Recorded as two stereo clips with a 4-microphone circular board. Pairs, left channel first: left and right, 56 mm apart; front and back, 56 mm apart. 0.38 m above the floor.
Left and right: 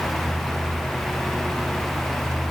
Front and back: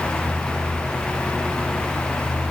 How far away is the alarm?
No alarm in this recording.